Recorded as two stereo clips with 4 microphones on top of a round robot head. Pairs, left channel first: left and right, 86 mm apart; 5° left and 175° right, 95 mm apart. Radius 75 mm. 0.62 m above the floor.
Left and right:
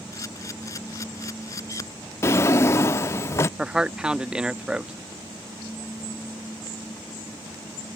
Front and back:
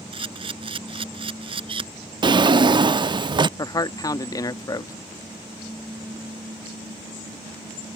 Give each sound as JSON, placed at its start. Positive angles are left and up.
{"t": 0.1, "sound": "a camera shutter", "azimuth_deg": 155}
{"t": 2.2, "sound": "a drawer", "azimuth_deg": 150}
{"t": 3.6, "sound": "a man speaking", "azimuth_deg": -15}